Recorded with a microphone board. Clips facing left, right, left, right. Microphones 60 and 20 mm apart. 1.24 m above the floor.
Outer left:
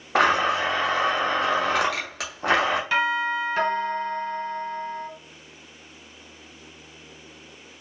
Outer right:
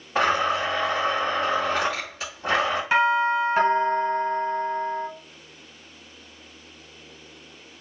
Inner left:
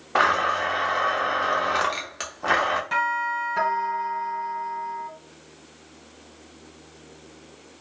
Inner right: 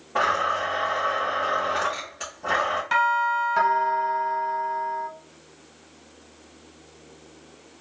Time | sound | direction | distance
0.1 | a blender | 85° left | 0.9 m
2.9 | a doorbell | 20° right (ahead or behind) | 1.2 m